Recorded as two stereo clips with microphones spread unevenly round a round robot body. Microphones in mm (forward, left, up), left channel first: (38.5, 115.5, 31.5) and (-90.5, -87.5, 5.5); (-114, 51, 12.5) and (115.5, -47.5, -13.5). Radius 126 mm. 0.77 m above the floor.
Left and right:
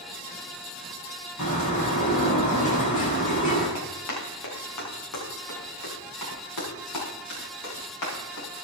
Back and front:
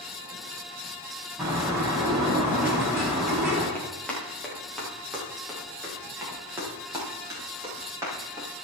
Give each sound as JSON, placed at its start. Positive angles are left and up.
{"t": 1.4, "sound": "a bird", "azimuth_deg": 60, "distance_m": 7.5}
{"t": 3.8, "sound": "running footsteps", "azimuth_deg": 75, "distance_m": 6.0}